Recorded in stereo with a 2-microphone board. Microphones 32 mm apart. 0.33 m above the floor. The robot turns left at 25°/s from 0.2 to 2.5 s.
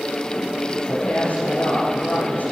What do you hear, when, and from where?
0.9 s a woman speaking: 135° left, 5.5 m; by 2.5 s 95° left, 5.5 m